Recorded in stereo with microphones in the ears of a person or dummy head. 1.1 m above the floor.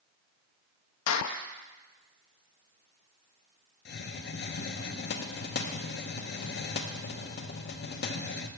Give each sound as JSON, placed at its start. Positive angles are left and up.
{"t": 1.1, "sound": "a clap", "side_deg": 85, "distance_m": 0.8}
{"t": 3.9, "sound": "a hiss", "side_deg": 50, "distance_m": 0.8}